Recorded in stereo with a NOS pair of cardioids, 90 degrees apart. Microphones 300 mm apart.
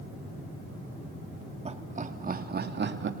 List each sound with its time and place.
1.6 s laughter: 25° right, 3 m; by 3.1 s 40° right, 3 m